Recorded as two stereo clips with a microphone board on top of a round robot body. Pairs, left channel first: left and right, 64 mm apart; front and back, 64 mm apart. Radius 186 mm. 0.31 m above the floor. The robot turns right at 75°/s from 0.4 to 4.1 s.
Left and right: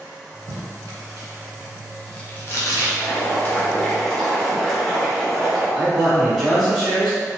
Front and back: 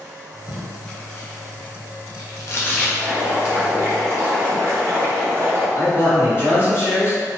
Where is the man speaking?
10° right, 1.9 m.